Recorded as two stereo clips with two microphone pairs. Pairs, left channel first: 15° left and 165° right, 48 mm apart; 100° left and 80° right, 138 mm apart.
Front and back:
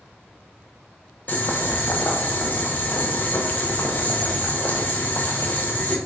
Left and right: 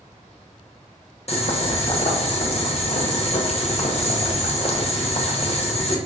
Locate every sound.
1.3 s boiling: 65° left, 0.6 m